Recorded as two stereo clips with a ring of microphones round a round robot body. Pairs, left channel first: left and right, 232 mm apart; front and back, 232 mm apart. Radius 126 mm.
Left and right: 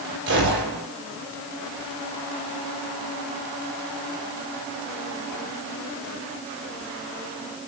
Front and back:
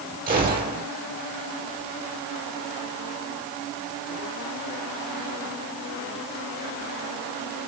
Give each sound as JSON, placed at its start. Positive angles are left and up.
{"t": 0.3, "sound": "a gunshot", "azimuth_deg": -130, "distance_m": 9.5}